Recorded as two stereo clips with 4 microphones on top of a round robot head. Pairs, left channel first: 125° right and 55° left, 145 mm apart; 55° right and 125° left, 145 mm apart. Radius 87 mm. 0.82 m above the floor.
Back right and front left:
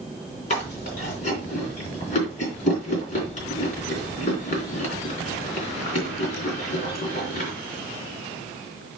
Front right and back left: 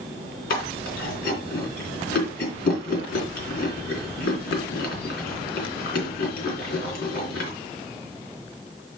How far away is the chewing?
About 3.5 m.